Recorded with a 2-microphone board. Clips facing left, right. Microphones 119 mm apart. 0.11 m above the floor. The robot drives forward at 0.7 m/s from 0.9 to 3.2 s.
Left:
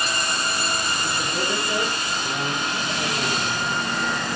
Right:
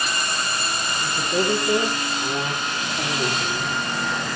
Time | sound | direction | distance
1.0 | a man speaking | 40° right (ahead or behind) | 8 m